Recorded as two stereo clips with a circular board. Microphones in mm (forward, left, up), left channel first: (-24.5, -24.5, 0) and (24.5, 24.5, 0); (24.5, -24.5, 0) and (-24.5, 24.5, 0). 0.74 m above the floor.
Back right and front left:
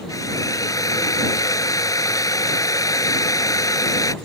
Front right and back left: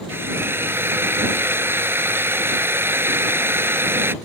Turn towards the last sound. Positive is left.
turn(degrees=-170)